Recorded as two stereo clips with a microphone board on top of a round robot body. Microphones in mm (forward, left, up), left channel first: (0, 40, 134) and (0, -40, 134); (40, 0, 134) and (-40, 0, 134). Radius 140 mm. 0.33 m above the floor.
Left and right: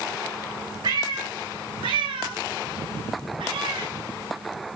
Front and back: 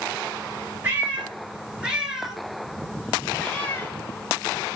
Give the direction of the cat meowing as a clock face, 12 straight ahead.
4 o'clock.